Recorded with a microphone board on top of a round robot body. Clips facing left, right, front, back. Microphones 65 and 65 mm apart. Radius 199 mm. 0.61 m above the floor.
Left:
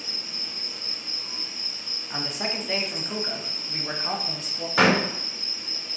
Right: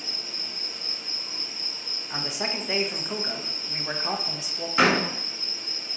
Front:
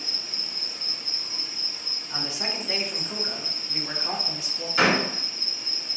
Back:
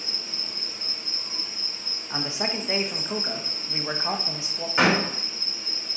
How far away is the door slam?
About 2.5 m.